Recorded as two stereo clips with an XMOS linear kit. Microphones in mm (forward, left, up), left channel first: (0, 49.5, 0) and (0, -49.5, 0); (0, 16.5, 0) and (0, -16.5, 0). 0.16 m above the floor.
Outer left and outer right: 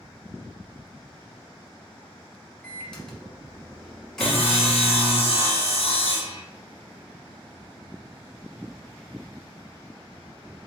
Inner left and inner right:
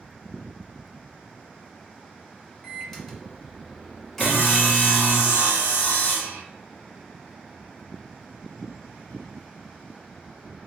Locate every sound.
2.6 s a microwave: 5° left (ahead or behind), 1.2 m
4.2 s sawing: 80° left, 1.1 m